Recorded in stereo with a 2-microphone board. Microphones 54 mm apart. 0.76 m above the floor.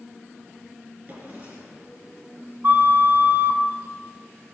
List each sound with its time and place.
1.1 s a drawer: 40° right (ahead or behind), 4.5 m
2.6 s a flute: 50° right (ahead or behind), 1.6 m